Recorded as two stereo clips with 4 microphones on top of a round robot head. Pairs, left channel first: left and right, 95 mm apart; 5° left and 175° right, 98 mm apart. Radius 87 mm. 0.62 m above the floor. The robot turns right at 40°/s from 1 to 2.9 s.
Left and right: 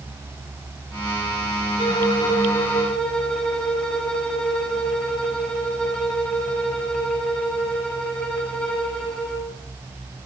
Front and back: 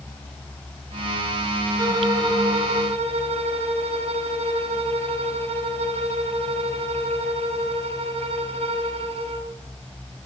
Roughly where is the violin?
Behind left.